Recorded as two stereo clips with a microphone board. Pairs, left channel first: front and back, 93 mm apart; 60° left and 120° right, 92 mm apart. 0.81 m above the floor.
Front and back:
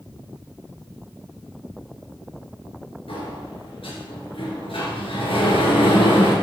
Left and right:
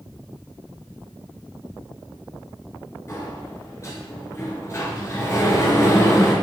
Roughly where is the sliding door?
Ahead.